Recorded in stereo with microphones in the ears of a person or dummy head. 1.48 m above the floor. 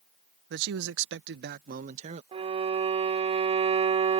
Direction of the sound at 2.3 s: 25° right (ahead or behind).